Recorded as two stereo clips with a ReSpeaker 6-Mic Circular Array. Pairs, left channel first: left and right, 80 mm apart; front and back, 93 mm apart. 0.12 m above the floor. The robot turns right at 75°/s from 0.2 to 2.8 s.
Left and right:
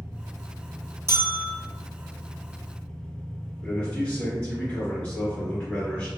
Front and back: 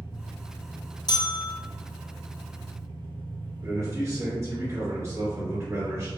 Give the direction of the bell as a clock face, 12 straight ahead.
1 o'clock.